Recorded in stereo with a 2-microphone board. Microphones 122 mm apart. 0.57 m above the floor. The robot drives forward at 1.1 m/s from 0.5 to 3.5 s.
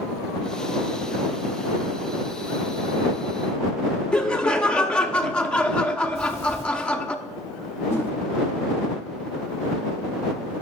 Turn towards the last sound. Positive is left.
turn(degrees=25)  # may be behind; listen again after turning